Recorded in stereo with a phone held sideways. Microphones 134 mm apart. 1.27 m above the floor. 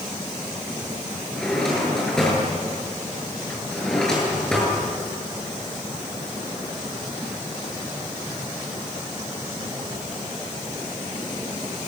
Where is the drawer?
5° left (ahead or behind), 8.5 m.